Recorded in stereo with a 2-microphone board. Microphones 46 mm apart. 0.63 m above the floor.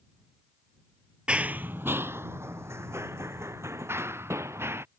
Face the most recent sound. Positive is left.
turn(degrees=-65)  # may be behind; listen again after turning